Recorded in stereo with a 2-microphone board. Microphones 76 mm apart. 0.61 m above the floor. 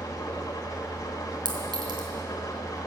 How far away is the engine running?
About 2 m.